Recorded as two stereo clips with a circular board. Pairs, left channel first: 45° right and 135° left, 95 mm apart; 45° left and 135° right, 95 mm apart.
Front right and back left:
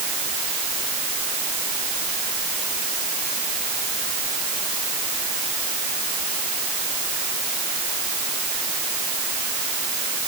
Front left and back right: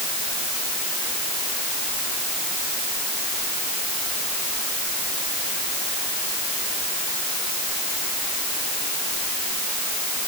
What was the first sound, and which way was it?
Only background noise.